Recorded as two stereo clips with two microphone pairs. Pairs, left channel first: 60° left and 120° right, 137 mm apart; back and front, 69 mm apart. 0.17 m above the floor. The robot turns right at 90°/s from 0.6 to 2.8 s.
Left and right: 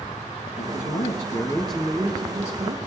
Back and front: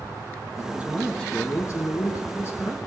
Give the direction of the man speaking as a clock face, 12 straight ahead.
10 o'clock.